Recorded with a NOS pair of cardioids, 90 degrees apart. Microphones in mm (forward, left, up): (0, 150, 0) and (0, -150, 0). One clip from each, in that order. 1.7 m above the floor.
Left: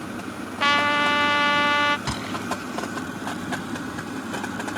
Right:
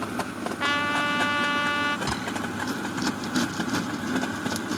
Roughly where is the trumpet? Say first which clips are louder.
Left 5 dB; ahead left.